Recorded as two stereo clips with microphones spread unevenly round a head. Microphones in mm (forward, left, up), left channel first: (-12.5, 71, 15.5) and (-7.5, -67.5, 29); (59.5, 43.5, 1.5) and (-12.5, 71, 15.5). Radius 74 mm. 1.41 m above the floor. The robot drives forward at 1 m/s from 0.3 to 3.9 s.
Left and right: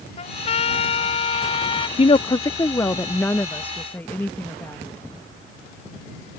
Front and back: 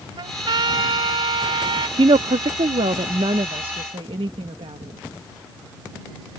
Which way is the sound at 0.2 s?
140° left.